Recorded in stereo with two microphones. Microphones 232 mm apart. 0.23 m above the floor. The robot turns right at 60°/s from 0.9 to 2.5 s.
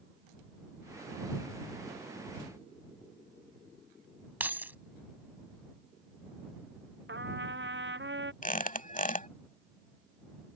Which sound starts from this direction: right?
A trumpet, at 7.1 s.